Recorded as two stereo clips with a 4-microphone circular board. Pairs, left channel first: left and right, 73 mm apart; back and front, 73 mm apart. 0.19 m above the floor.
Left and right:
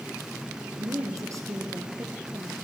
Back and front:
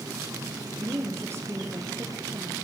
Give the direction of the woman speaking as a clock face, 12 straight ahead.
2 o'clock.